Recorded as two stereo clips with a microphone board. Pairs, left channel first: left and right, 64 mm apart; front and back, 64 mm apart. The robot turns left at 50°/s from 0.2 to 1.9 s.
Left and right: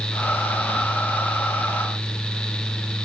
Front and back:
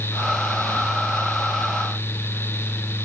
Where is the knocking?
I don't hear knocking.